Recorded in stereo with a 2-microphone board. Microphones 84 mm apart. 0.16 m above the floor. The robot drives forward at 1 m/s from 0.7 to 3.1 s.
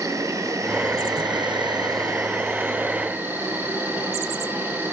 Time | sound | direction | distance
0.0 | an insect | 40° right (ahead or behind) | 1.1 m